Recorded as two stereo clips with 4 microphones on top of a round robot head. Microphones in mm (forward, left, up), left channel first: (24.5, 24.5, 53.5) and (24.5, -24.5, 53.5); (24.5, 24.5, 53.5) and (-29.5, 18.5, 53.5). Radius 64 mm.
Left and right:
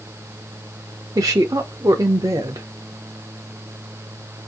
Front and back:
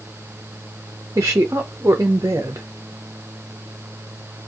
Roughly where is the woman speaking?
Behind right.